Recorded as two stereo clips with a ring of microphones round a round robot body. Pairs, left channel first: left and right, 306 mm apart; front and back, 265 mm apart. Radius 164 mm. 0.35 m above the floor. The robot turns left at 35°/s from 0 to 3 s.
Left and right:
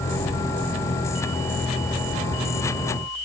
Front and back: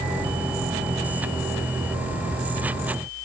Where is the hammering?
I don't hear hammering.